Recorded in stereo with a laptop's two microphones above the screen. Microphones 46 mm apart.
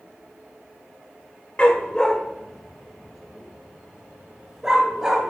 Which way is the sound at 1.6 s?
25° left (ahead or behind).